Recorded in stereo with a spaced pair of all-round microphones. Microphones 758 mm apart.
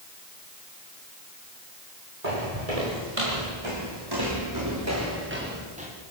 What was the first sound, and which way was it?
Footsteps, 55° right (ahead or behind).